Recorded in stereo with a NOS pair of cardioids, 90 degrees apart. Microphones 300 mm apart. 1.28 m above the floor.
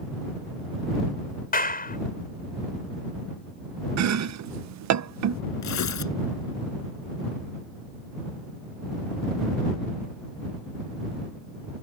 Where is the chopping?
65° right.